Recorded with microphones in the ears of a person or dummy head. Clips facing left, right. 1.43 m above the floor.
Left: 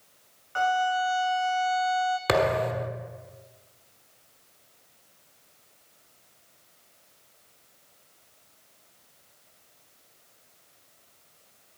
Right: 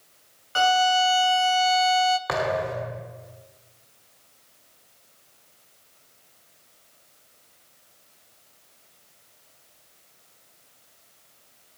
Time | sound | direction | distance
0.6 | a violin | 50° right (ahead or behind) | 0.6 m
2.3 | a thud | 35° left (ahead or behind) | 1.2 m